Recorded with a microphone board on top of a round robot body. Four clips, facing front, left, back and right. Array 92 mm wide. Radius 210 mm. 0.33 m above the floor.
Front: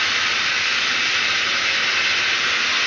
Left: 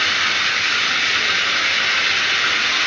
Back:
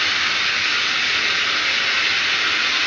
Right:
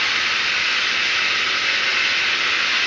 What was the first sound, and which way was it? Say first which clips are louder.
Running water: left 2 dB, even; 80° left.